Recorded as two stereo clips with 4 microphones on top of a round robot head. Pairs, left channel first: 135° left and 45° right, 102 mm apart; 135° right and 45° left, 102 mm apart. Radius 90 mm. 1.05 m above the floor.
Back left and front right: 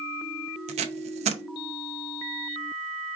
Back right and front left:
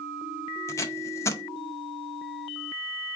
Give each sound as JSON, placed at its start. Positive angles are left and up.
{"t": 0.7, "sound": "tape being pulled", "azimuth_deg": -70, "distance_m": 0.6}